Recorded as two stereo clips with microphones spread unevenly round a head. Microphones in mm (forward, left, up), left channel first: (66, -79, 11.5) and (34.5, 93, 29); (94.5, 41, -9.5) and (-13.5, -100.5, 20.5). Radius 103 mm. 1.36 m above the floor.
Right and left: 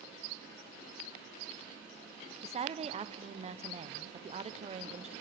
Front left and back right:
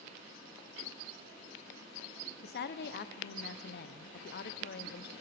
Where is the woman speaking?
45° left, 0.7 m.